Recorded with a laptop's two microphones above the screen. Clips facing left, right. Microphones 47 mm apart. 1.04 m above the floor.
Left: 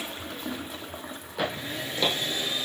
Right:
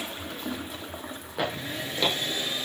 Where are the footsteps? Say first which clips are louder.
Even; 25° right (ahead or behind), 3 m.